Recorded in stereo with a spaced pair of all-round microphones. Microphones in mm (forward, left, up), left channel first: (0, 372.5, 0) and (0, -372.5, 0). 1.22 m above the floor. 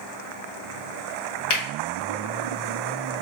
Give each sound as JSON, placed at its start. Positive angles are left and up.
{"t": 1.5, "sound": "a finger snap", "side_deg": 35, "distance_m": 1.3}